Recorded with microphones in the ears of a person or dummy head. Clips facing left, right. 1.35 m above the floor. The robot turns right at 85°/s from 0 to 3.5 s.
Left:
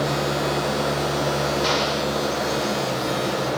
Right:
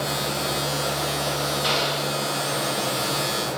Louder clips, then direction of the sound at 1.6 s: Left 3 dB; 125° left.